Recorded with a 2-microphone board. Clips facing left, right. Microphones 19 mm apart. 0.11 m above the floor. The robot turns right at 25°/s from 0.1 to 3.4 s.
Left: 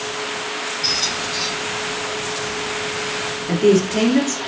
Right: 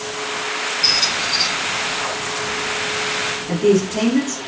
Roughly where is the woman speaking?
Left.